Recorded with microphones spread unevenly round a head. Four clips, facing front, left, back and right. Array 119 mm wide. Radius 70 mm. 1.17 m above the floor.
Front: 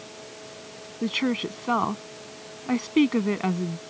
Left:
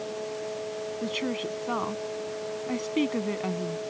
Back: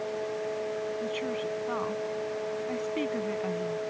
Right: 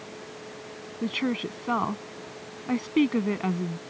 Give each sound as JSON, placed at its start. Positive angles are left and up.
{"t": 0.0, "sound": "a fan", "azimuth_deg": 170}
{"t": 1.0, "sound": "a woman speaking", "azimuth_deg": 0}